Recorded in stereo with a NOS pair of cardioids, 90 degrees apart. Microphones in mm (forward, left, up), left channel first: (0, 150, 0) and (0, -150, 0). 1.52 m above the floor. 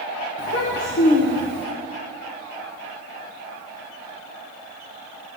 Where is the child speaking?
50° left, 1.0 m.